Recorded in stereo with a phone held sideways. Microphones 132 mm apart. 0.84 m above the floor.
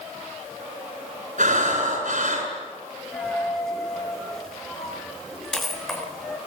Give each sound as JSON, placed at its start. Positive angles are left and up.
{"t": 1.4, "sound": "breathing", "side_deg": -80, "distance_m": 8.0}
{"t": 3.1, "sound": "a dropped coin", "side_deg": 0, "distance_m": 6.0}